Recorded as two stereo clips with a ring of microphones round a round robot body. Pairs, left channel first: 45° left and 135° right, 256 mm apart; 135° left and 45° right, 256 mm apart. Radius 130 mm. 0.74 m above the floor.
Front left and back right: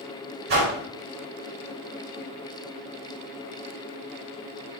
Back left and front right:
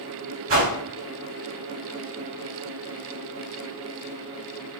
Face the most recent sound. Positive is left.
turn(degrees=-80)